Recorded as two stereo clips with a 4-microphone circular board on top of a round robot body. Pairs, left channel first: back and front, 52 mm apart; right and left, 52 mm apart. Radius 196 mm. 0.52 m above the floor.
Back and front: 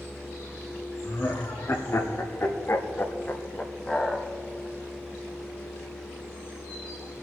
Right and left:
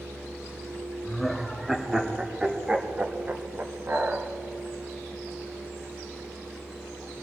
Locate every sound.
1.0 s laughter: straight behind, 1.9 m; by 4.3 s 105° left, 1.3 m